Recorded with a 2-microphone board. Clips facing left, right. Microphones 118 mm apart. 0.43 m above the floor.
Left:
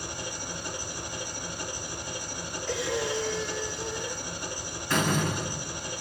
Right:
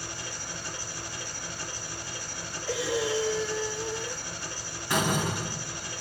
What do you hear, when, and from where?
0.0 s an engine running: 15° left (ahead or behind), 2.5 m
2.7 s breathing: 5° right (ahead or behind), 1.3 m
4.9 s a door slam: 15° right (ahead or behind), 2 m